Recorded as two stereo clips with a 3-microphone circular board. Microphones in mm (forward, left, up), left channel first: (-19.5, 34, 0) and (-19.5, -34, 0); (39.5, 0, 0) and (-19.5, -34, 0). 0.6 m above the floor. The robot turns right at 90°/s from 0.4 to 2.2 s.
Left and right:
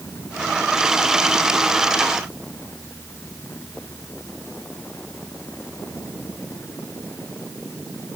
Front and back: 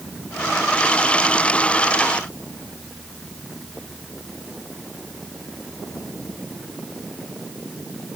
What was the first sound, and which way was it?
Only background noise.